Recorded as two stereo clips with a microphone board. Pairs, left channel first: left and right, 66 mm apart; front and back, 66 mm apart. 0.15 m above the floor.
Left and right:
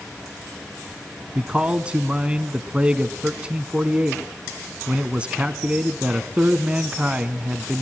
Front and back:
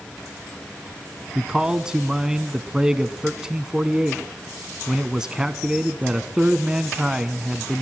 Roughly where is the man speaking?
Behind right.